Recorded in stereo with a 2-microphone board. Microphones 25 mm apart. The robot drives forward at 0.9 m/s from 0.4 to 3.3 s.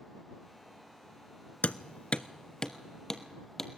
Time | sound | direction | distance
1.6 | hammering | 60° left (ahead or behind) | 0.6 m